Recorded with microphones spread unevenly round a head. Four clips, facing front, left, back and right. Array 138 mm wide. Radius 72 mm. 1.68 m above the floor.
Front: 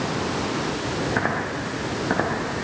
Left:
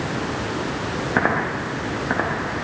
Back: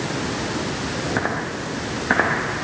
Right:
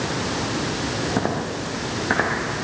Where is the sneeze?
I don't hear a sneeze.